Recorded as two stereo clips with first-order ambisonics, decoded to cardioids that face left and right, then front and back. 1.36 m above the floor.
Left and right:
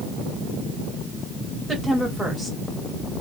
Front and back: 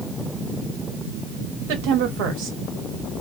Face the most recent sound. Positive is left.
turn(degrees=180)